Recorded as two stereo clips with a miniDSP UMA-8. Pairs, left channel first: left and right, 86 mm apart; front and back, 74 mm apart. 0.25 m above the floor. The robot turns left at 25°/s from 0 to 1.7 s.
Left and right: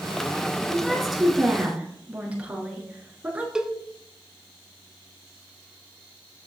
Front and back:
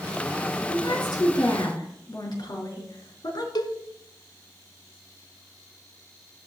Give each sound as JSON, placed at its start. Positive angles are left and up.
{"t": 0.7, "sound": "a woman speaking", "azimuth_deg": 10, "distance_m": 4.0}
{"t": 3.5, "sound": "a cowbell", "azimuth_deg": -10, "distance_m": 1.1}